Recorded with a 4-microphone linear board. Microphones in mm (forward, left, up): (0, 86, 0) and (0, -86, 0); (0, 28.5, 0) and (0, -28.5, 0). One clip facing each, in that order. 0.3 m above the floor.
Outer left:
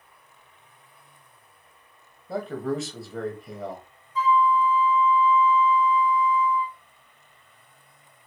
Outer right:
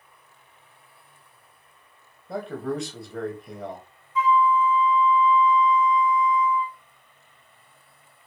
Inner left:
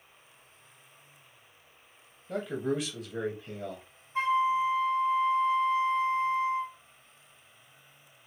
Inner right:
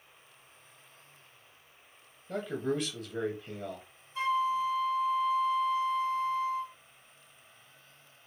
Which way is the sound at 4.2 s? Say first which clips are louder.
Outer right 1 dB, inner left 3 dB; 35° left (ahead or behind).